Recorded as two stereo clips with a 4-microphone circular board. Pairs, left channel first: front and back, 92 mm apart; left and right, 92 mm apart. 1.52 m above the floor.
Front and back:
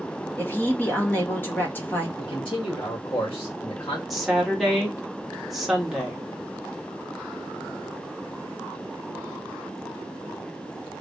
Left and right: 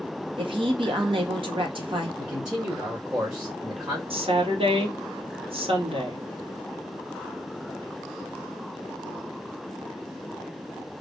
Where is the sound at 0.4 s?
70° right, 1.2 m.